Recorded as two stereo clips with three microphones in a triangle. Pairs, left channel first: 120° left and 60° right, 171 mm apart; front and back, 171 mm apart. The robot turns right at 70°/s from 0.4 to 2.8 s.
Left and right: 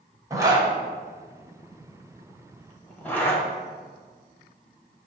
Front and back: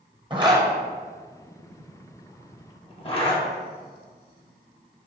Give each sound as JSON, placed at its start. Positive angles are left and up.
{"t": 0.3, "sound": "a zipper", "azimuth_deg": -125, "distance_m": 0.7}